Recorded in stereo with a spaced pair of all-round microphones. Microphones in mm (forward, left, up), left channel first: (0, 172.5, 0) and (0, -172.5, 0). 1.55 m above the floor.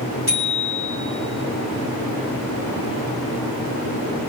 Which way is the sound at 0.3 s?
80° left.